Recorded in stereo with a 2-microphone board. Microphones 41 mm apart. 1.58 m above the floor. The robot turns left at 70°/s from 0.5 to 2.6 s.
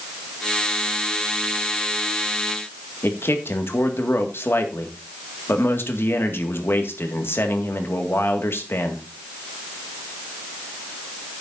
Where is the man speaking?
80° left, 1.9 m.